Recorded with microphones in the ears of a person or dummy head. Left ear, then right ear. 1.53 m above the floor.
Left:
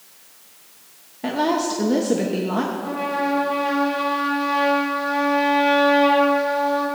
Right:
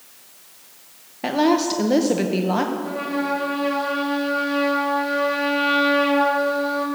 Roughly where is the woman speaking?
Right.